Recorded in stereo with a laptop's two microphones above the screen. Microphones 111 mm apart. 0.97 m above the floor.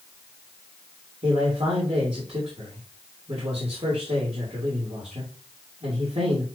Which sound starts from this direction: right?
A man speaking, at 1.2 s.